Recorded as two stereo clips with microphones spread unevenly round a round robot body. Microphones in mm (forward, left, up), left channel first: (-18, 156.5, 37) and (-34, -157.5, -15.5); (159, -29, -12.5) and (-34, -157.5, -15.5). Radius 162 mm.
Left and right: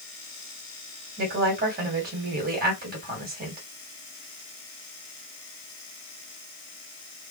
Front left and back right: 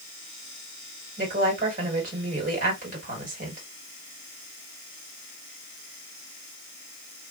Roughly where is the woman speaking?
Behind right.